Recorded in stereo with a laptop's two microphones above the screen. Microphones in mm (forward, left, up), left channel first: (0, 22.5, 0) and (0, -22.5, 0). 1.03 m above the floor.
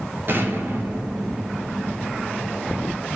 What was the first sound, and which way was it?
An explosion, 50° right (ahead or behind).